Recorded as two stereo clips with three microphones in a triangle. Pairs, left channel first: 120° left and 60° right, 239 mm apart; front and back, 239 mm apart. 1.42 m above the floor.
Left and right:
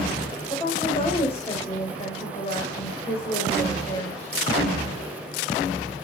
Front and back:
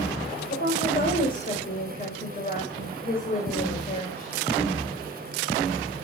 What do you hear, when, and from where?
0.5 s a woman speaking: 55° left, 6 m